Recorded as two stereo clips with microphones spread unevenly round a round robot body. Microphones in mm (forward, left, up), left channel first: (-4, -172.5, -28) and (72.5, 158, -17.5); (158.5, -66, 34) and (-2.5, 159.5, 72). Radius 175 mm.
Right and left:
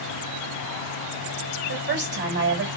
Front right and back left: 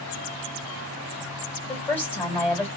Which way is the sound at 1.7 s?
30° left.